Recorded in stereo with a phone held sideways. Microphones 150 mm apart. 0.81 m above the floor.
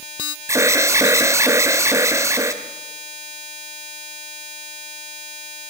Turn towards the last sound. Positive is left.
turn(degrees=-20)  # may be behind; listen again after turning